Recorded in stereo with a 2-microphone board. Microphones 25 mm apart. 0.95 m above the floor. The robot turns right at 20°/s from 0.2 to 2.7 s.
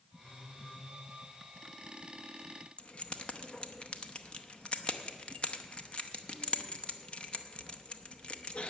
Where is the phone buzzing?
55° left (ahead or behind), 3 m; by 0.9 s 65° left (ahead or behind), 3 m.